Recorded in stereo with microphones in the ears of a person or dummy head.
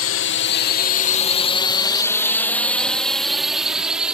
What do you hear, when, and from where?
0.0 s a drone: 65° left (ahead or behind); by 4.2 s 5° right (ahead or behind)